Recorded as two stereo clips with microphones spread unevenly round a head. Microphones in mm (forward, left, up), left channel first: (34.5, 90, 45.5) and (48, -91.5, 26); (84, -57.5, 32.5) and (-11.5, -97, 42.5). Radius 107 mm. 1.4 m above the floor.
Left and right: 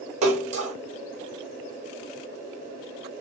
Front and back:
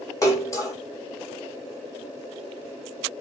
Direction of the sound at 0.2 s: 35° right.